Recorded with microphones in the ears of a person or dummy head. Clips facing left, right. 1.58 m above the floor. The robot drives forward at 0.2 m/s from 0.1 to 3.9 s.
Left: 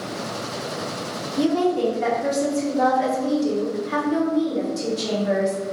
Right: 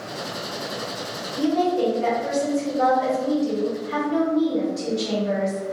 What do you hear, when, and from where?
1.4 s a woman speaking: 70° left (ahead or behind), 1.1 m; by 5.6 s 65° left (ahead or behind), 1.1 m